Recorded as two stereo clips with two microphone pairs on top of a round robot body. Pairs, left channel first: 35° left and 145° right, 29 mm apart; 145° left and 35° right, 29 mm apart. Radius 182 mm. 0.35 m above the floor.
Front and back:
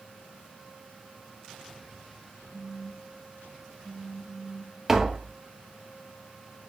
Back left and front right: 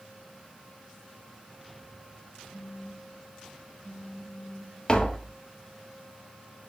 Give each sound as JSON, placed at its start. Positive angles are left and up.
{"t": 2.5, "sound": "a phone buzzing", "azimuth_deg": -5, "distance_m": 1.7}
{"t": 4.9, "sound": "tapping", "azimuth_deg": 140, "distance_m": 1.6}